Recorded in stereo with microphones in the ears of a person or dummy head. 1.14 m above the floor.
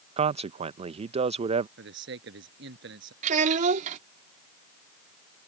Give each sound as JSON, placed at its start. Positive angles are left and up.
{"t": 0.2, "sound": "a man speaking", "side_deg": -35}
{"t": 1.8, "sound": "a man speaking", "side_deg": -70}
{"t": 3.2, "sound": "a child speaking", "side_deg": -50}